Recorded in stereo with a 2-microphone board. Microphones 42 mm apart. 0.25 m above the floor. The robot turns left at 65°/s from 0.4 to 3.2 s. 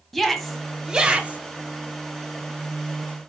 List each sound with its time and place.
0.1 s a shout: 5° left (ahead or behind), 1.2 m; by 1.4 s 35° right (ahead or behind), 1.2 m